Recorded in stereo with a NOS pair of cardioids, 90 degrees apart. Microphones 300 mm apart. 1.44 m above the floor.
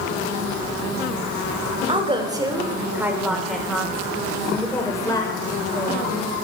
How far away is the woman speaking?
About 4 m.